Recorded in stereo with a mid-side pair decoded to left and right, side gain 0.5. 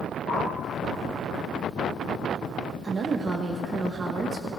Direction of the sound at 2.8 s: 35° right.